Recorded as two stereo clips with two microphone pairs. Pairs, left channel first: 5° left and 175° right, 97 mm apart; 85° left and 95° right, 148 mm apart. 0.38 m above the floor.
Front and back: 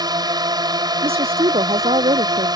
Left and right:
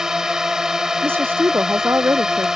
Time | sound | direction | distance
0.0 | a drone | straight behind | ?
1.0 | a woman speaking | 170° right | ?